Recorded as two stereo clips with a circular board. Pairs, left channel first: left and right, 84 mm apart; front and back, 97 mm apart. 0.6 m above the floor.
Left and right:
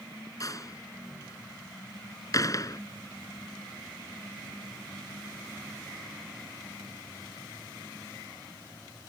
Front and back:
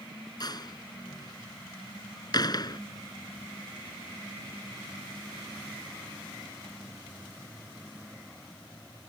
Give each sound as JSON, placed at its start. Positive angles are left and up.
{"t": 0.4, "sound": "a door slam", "azimuth_deg": 45}